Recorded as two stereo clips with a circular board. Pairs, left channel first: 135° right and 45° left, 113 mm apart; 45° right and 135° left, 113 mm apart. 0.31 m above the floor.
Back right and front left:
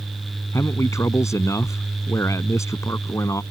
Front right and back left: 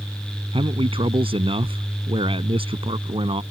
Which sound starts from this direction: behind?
A man speaking, at 0.5 s.